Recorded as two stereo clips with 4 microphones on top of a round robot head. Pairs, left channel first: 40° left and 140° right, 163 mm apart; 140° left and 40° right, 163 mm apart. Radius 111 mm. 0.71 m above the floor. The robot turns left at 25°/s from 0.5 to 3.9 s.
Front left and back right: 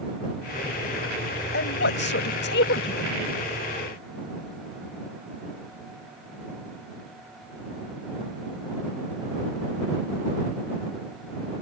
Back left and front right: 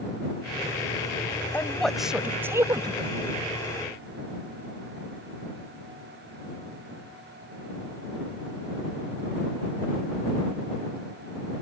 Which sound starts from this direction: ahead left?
A woman speaking, at 1.5 s.